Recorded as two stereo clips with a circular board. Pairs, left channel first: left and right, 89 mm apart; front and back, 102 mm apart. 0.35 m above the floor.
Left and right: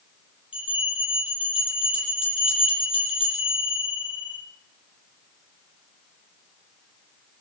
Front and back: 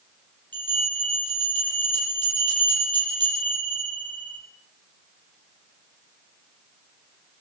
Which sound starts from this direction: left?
A bell, at 0.5 s.